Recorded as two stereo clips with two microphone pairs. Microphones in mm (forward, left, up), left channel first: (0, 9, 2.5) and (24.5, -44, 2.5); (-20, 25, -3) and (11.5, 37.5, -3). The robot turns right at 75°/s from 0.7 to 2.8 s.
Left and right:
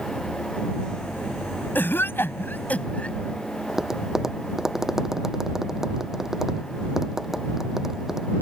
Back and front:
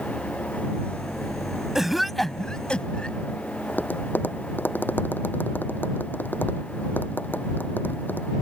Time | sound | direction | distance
1.8 | a cough | 90° left | ?
3.7 | tapping | 145° right | ?